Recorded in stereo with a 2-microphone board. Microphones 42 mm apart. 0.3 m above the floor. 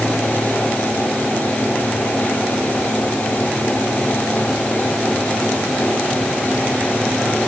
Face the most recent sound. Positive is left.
No sound to turn to.